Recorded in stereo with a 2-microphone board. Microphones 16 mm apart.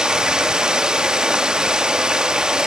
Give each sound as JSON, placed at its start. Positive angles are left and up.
{"t": 0.0, "sound": "running water", "side_deg": -60, "distance_m": 1.4}